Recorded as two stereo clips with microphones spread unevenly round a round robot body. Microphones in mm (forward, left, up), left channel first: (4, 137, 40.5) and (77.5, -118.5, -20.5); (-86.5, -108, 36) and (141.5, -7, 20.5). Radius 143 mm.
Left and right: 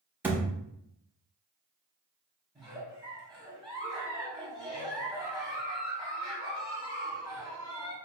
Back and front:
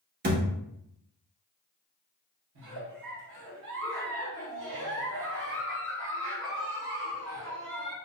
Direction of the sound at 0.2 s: 25° left.